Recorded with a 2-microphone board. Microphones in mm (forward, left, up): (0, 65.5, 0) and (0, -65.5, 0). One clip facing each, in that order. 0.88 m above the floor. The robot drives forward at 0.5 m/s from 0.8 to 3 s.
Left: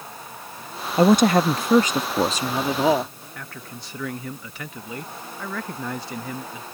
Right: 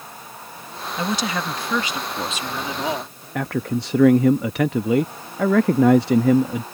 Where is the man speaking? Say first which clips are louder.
Right 17 dB; 70° right (ahead or behind).